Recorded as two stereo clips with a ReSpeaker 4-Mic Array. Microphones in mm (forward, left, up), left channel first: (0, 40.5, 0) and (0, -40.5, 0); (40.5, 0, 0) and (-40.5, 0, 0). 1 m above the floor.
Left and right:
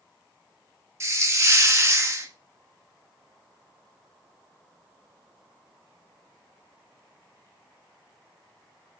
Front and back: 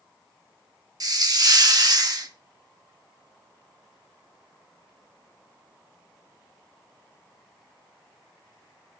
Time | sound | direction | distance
1.0 | a hiss | 145° right | 1.1 m